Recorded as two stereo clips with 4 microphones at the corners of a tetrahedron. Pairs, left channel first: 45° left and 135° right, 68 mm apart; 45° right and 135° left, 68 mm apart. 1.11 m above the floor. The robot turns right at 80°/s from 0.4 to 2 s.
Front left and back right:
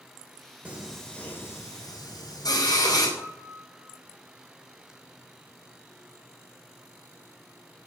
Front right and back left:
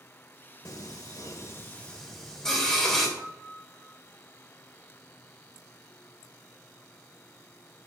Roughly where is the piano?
Left.